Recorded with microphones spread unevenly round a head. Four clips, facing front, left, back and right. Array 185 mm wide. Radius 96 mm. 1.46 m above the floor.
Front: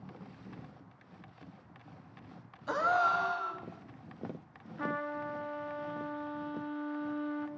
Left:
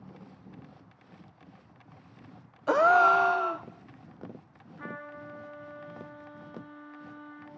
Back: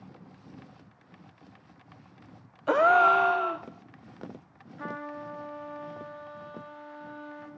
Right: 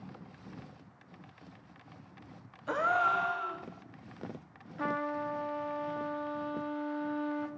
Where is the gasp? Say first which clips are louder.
Left 8 dB, back 9 dB; 140° left, 0.8 m.